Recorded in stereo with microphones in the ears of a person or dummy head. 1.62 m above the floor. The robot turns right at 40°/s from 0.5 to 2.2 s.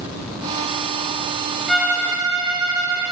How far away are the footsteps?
I don't hear footsteps.